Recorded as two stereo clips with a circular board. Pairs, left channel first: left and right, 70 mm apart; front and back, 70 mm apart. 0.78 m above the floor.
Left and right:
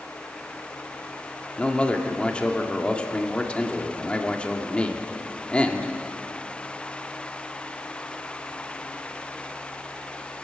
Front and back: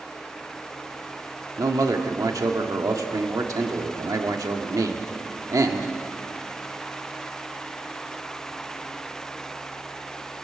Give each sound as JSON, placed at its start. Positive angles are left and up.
{"t": 1.6, "sound": "a man speaking", "azimuth_deg": 160, "distance_m": 1.8}